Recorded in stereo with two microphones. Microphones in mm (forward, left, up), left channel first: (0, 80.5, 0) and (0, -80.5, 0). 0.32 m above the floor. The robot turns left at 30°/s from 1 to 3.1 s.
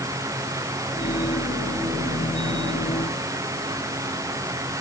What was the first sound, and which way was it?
Only background noise.